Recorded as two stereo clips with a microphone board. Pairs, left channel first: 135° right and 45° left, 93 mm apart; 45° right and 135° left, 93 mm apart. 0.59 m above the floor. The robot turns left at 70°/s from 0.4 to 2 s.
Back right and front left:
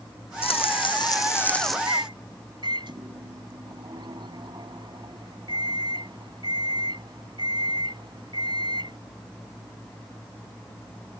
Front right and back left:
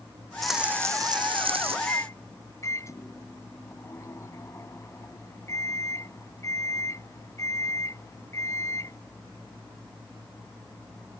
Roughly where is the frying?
Behind right.